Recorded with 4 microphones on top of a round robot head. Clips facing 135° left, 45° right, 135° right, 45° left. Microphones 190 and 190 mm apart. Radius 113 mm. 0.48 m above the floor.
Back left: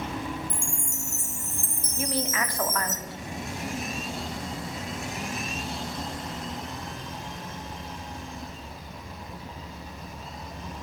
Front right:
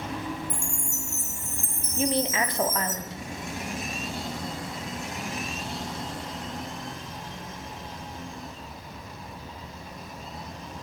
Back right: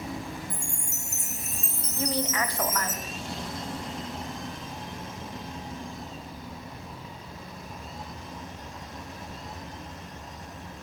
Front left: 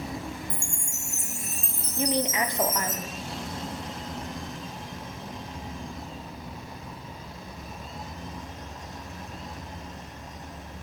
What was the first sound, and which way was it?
A chime, 125° left.